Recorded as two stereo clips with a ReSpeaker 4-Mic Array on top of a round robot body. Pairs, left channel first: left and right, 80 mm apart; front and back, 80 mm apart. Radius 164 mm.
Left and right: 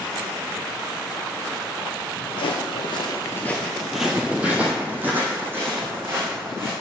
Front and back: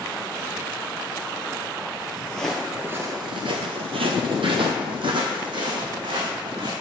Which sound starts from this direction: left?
Footsteps, at 2.3 s.